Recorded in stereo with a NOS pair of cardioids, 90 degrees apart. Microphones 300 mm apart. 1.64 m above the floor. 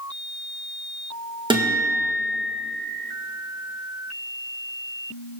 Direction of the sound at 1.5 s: 15° right.